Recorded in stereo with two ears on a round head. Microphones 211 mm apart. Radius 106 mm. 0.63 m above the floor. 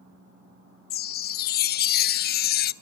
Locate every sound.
0.9 s a chime: 40° left (ahead or behind), 0.6 m